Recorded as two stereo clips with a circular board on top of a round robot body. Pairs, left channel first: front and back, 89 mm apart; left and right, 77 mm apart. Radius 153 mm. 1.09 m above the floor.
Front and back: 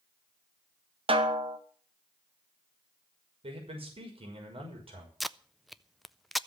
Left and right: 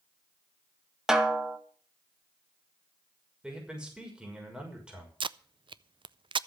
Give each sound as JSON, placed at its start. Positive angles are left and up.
{"t": 1.1, "sound": "a snare drum", "azimuth_deg": -175, "distance_m": 2.0}
{"t": 3.4, "sound": "a man speaking", "azimuth_deg": -170, "distance_m": 6.0}
{"t": 5.2, "sound": "tape being pulled", "azimuth_deg": -90, "distance_m": 0.6}